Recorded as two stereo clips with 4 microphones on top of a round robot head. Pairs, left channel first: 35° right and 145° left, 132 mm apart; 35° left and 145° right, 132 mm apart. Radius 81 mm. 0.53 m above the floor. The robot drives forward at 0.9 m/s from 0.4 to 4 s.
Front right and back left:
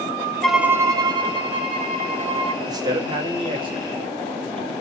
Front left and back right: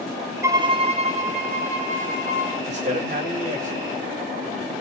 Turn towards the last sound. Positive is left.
turn(degrees=-165)